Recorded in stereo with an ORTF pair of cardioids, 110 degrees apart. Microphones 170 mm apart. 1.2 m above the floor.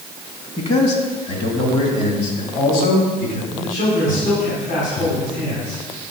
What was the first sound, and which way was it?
A man speaking, 40° left.